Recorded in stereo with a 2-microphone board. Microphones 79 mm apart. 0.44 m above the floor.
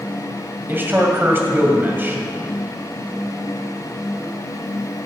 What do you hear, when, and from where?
0.7 s a man speaking: 25° right (ahead or behind), 2.5 m